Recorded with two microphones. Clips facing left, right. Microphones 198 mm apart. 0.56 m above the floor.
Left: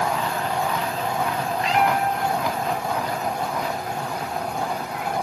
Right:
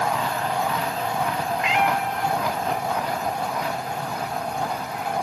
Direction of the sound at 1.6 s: 35° left (ahead or behind).